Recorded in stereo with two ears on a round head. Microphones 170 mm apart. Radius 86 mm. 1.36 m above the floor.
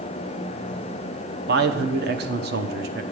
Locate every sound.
1.5 s a man speaking: 55° right (ahead or behind), 0.9 m